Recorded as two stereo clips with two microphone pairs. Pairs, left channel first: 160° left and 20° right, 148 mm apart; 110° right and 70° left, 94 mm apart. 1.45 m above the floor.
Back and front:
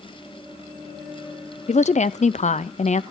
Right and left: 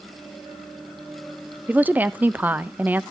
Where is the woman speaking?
140° left, 0.5 m.